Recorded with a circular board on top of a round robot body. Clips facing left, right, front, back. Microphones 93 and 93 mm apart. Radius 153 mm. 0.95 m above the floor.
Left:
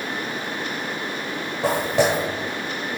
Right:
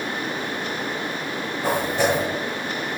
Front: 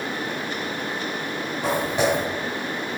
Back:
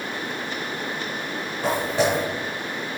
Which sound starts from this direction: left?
Footsteps, at 1.6 s.